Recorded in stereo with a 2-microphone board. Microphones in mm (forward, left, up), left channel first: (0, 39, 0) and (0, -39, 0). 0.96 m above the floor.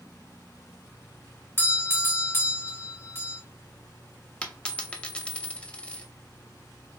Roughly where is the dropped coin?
Centre.